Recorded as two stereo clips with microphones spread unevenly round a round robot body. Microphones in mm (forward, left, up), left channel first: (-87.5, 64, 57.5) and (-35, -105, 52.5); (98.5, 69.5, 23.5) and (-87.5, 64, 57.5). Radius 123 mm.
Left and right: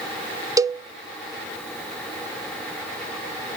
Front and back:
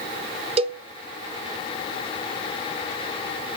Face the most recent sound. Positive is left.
turn(degrees=-125)